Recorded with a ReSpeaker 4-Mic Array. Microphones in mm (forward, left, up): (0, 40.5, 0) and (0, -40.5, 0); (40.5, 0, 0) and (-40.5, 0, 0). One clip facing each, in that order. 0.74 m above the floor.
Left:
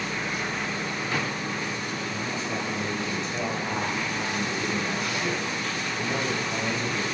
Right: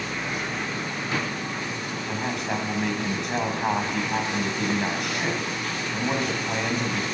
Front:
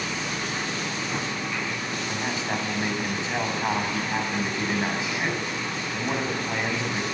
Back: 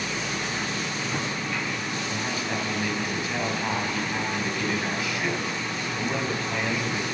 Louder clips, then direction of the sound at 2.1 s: Right 6 dB, front 2 dB; 65° right.